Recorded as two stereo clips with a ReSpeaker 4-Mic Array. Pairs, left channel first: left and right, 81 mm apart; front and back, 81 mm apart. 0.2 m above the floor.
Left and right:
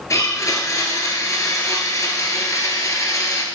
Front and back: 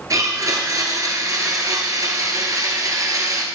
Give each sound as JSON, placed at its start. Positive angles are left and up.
{"t": 0.1, "sound": "a blender", "azimuth_deg": 140, "distance_m": 1.3}